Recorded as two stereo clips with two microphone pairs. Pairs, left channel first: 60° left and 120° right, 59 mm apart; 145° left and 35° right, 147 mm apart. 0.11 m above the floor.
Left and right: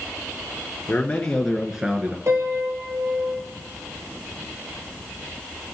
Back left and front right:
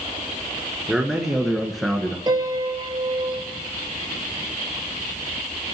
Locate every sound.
0.9 s a man speaking: 55° left, 1.7 m; by 2.2 s 125° right, 1.6 m
2.3 s a piano: 90° right, 1.4 m